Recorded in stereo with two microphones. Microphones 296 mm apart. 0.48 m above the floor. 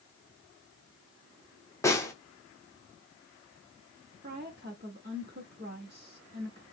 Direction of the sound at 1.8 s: 10° left (ahead or behind).